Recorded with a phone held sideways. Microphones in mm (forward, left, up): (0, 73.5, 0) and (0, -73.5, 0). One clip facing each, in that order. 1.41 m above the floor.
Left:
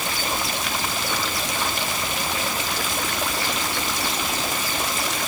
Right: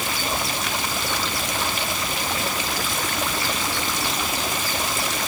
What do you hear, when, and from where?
Only background noise.